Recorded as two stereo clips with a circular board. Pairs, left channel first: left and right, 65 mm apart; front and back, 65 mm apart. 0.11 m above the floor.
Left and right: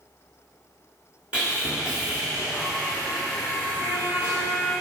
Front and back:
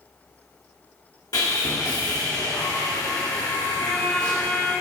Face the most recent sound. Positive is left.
turn(degrees=-65)